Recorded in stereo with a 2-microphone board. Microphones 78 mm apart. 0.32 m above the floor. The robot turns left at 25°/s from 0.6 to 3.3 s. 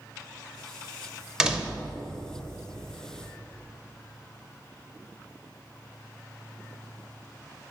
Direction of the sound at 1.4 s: 10° right (ahead or behind).